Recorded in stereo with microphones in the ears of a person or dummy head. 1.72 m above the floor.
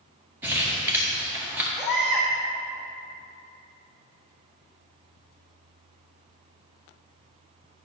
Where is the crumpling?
10° right (ahead or behind), 1.6 m.